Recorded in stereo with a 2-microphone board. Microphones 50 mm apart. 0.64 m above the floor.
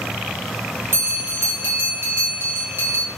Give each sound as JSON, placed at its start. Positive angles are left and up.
{"t": 0.9, "sound": "a bell", "side_deg": -45, "distance_m": 1.2}